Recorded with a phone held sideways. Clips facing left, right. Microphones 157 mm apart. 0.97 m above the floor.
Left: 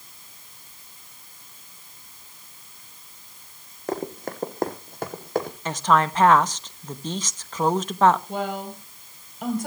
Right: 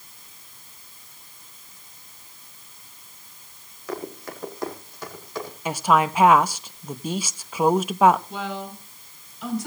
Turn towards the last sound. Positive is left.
turn(degrees=55)  # may be behind; listen again after turning